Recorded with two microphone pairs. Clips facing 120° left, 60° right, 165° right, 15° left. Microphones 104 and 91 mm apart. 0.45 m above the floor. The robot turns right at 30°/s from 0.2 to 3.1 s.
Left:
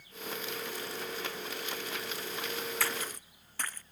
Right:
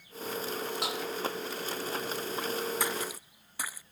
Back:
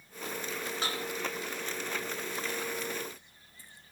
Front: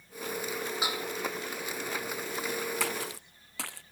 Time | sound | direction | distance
0.8 | dishes clattering | 65° right | ?
2.8 | a splash | 10° left | ?